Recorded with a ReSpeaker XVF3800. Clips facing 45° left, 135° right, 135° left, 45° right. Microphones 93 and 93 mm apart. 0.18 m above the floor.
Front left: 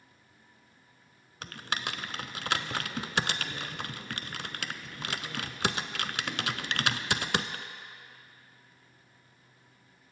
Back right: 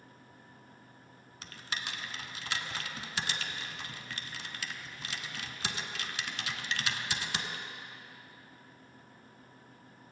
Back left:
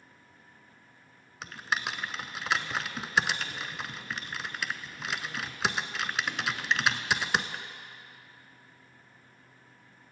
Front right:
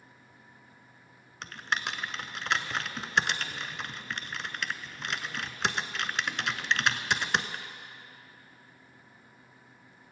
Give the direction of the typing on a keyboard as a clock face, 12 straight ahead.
10 o'clock.